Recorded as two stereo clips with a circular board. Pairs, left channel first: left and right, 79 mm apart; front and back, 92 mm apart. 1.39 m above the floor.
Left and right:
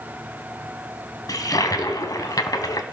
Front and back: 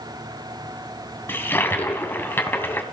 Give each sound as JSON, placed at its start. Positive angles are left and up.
{"t": 1.3, "sound": "a toilet flushing", "azimuth_deg": 60, "distance_m": 2.5}